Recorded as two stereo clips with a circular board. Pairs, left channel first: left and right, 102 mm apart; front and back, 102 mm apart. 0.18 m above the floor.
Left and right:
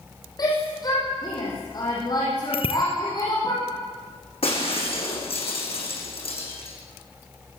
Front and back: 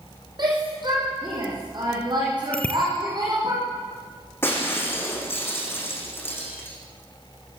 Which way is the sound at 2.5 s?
75° left.